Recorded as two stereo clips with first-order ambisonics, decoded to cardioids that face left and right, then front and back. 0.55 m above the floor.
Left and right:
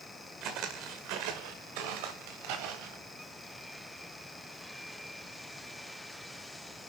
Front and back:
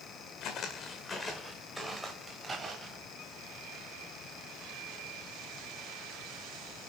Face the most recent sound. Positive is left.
turn(degrees=-110)